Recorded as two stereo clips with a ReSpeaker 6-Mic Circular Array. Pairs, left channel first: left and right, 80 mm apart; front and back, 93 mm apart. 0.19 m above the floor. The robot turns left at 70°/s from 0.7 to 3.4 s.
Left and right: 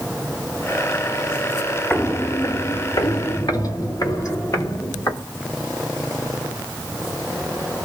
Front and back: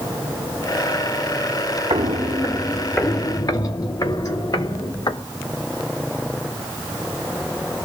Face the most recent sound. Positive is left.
turn(degrees=45)